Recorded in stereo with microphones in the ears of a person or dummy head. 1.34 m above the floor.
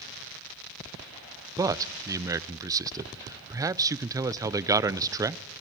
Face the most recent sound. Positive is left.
turn(degrees=-20)  # may be behind; listen again after turning